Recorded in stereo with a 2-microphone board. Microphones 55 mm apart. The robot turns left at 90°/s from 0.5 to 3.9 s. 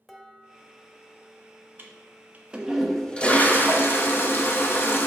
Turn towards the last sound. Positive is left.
turn(degrees=85)